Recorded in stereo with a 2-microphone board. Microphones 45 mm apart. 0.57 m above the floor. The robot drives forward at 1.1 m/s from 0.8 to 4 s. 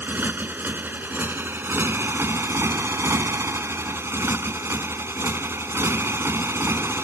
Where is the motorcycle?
50° right (ahead or behind); by 7.0 s 70° right (ahead or behind).